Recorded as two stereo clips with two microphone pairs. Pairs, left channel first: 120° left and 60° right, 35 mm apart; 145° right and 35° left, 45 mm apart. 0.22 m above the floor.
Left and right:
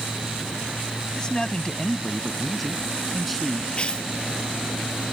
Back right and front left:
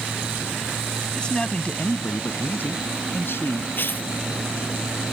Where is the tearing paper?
Straight behind.